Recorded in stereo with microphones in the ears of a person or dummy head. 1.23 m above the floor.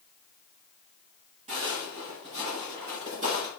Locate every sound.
1.5 s footsteps: 30° right (ahead or behind), 1.7 m